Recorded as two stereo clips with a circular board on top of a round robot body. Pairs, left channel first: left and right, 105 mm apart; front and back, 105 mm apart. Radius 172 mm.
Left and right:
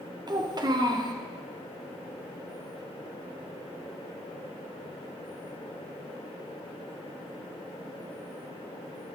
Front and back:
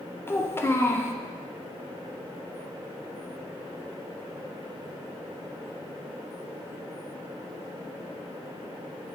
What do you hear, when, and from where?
0.3 s a child speaking: 60° right, 1.1 m